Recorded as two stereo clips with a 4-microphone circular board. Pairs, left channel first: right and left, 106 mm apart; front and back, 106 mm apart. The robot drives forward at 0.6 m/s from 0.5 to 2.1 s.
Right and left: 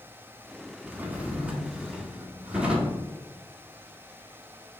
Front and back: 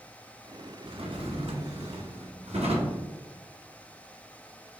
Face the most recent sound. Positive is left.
turn(degrees=170)